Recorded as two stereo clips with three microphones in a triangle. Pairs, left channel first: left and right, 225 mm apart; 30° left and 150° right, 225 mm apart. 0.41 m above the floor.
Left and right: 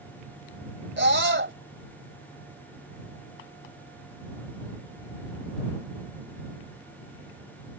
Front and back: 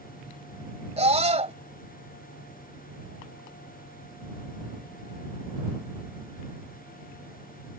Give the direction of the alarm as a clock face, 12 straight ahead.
I don't hear an alarm.